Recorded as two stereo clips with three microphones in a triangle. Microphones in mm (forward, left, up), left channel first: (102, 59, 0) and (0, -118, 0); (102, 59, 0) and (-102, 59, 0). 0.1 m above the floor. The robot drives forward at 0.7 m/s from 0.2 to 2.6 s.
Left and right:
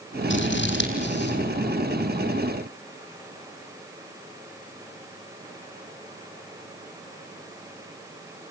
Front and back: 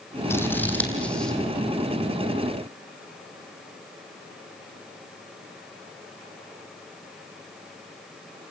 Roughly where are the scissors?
Left.